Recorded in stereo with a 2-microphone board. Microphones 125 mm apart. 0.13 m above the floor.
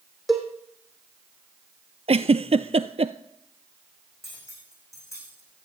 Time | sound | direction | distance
0.3 | a cowbell | centre (ahead or behind) | 2 m
2.1 | a giggle | 60° right (ahead or behind) | 0.5 m
4.2 | cutlery clinking | 25° left (ahead or behind) | 5 m